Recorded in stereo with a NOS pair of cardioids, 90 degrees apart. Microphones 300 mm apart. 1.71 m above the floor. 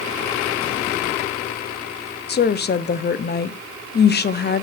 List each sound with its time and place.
2.3 s a woman speaking: 35° left, 0.7 m